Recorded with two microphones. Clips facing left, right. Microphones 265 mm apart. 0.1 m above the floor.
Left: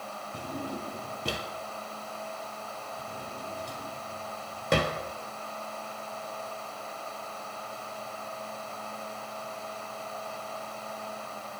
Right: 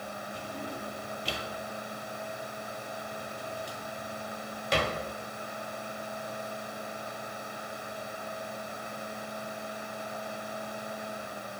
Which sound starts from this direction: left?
A drawer, at 0.3 s.